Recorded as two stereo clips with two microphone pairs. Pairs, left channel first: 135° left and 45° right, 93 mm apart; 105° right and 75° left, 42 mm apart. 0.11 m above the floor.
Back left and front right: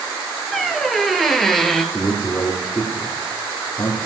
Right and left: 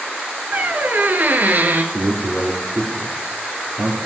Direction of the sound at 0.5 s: 45° left.